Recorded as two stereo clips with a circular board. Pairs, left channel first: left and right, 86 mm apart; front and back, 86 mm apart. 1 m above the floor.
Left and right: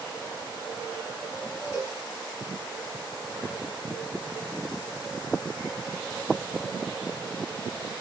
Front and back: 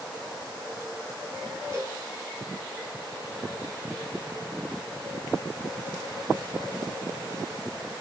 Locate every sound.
1.7 s a cowbell: 135° left, 5 m